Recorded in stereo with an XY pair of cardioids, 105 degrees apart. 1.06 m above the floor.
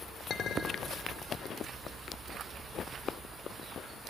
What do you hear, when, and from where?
0.3 s a clink: 50° left, 2 m